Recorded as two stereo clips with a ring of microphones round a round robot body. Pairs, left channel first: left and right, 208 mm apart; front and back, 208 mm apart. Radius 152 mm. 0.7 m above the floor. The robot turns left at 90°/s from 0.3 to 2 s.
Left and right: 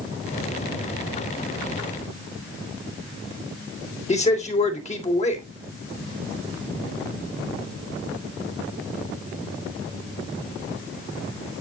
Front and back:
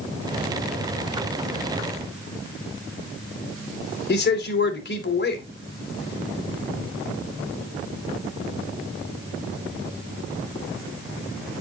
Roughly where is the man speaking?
Ahead left.